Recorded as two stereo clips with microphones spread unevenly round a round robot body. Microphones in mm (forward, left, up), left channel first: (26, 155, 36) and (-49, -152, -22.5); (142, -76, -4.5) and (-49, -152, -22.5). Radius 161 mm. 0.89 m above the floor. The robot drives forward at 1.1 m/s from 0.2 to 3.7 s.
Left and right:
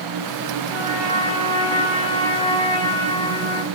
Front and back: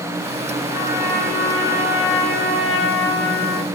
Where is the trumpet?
Straight ahead, 5 m; by 3.7 s 5° right, 2.0 m.